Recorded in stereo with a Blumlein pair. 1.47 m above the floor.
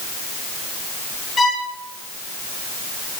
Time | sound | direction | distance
1.4 | a violin | 15° left | 0.9 m